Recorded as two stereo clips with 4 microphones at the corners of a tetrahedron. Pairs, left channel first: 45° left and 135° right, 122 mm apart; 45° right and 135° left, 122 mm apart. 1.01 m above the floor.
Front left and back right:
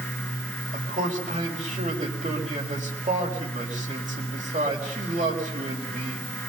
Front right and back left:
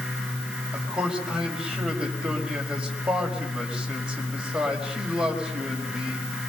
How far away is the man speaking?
About 4.5 m.